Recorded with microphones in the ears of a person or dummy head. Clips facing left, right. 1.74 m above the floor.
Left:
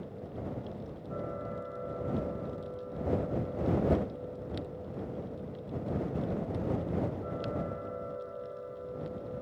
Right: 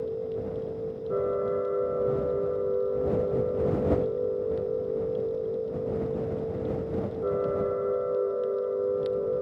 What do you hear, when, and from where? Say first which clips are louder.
0.0 s a machine running: right 11 dB; 60° right (ahead or behind)